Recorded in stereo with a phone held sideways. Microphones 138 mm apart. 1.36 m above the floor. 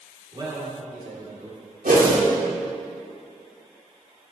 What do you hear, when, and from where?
0.3 s a man speaking: 35° right (ahead or behind), 4 m; by 1.6 s 60° right (ahead or behind), 4 m
1.9 s a whoosh: 75° right (ahead or behind), 2.5 m